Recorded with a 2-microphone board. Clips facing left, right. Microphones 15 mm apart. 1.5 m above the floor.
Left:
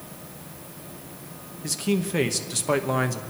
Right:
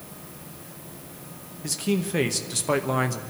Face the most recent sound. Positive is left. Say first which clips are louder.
# left 1 dB
turn(degrees=0)  # may be behind; listen again after turning